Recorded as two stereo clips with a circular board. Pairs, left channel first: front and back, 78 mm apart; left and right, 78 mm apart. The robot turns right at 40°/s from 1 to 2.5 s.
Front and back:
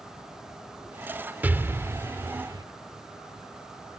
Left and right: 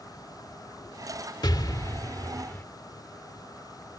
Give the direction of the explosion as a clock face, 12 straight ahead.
8 o'clock.